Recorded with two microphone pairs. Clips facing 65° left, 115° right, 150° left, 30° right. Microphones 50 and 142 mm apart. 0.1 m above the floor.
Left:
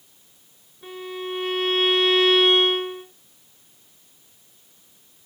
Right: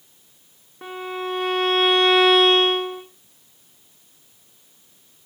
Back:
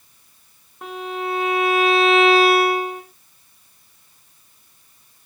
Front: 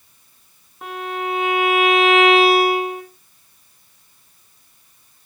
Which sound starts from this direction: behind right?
A violin, at 0.8 s.